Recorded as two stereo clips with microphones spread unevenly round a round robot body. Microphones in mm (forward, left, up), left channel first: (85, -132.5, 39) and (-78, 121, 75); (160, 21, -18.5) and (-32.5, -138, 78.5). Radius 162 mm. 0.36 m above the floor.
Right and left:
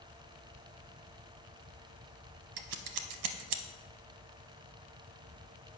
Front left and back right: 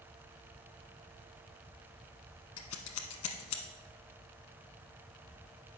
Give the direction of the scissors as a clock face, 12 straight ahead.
9 o'clock.